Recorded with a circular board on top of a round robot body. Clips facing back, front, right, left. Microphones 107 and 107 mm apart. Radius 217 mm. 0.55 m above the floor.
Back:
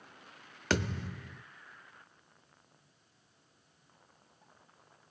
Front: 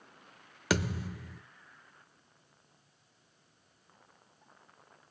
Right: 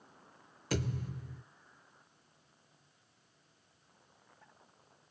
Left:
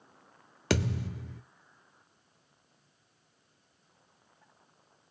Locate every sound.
0.7 s a thud: 85° left, 0.7 m